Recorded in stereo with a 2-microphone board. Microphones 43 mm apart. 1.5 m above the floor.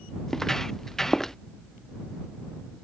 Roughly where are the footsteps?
Centre.